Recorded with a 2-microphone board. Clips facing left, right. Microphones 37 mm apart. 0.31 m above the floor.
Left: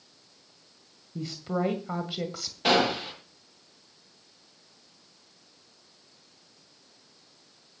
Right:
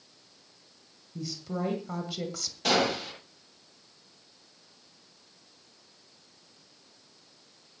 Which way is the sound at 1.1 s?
40° left (ahead or behind).